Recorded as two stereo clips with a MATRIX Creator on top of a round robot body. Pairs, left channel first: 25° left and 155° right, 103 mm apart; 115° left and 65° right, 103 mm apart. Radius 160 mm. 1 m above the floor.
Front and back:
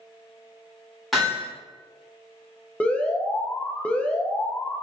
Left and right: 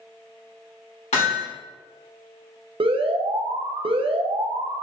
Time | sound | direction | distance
1.1 | hammering | 115° left | 2 m
2.8 | an alarm | 55° right | 0.8 m